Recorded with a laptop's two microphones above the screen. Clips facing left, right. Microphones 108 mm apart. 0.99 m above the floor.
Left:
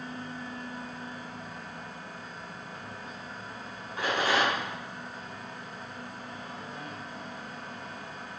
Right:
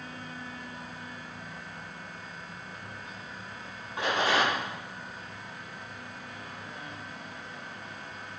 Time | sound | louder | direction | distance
0.0 | a fan | left 3 dB | 35° left (ahead or behind) | 1.2 m
4.0 | a rattle | even | 25° right (ahead or behind) | 4 m